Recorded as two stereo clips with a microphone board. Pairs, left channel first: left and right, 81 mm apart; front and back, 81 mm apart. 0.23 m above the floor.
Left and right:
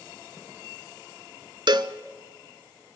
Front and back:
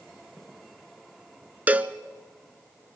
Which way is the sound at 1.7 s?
110° right.